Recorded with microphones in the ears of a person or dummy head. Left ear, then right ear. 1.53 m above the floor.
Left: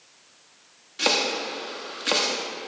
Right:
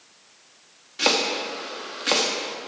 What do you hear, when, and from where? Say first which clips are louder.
1.0 s chopping: right 1 dB; 5° right (ahead or behind), 1.0 m